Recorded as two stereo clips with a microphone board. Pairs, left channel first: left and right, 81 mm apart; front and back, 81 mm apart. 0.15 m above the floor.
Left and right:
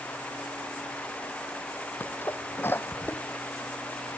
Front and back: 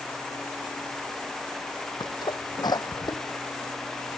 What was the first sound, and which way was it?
A sneeze, 30° left.